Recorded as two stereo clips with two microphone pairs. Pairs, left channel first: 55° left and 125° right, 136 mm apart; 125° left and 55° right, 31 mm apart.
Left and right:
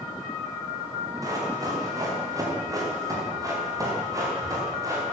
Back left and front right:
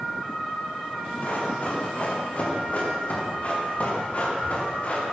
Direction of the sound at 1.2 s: 170° left.